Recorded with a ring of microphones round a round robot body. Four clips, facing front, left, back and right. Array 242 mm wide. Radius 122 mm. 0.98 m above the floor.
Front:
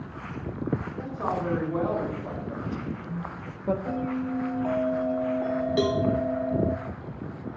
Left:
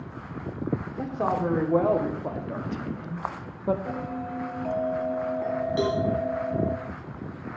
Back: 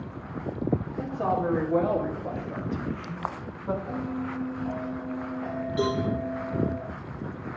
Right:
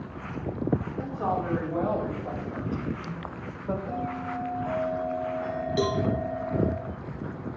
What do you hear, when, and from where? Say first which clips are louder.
1.0 s a woman speaking: left 2 dB, back 4 dB; 115° left, 2.5 m; by 3.8 s 55° left, 1.2 m
3.9 s a bell: even, front 3 dB; 35° left, 1.3 m
5.8 s a cowbell: even, front 1 dB; 5° right, 2 m